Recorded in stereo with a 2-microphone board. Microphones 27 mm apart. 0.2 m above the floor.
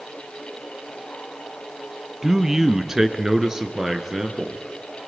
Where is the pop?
I don't hear a pop.